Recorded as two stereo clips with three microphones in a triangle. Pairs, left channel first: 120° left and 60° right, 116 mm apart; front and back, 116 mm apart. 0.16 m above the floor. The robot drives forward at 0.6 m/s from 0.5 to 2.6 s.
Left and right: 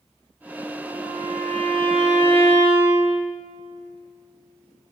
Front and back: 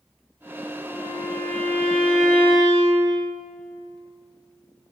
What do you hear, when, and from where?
0.9 s a violin: 75° right, 8.5 m; by 3.2 s 80° right, 8.5 m